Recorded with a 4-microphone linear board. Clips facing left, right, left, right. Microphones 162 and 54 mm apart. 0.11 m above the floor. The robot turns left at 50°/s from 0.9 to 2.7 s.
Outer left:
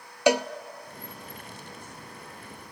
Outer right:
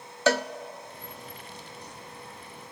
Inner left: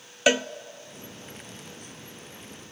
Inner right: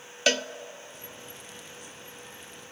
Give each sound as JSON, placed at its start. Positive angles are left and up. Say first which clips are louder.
{"t": 0.3, "sound": "a cowbell", "louder": "outer left 2 dB, inner left 4 dB", "side_deg": 15, "distance_m": 0.5}